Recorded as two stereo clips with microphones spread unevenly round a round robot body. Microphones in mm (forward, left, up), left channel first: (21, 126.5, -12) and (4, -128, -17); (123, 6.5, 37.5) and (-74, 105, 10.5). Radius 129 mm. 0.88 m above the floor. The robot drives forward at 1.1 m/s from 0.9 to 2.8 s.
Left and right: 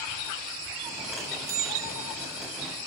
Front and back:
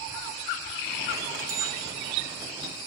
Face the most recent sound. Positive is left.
turn(degrees=-160)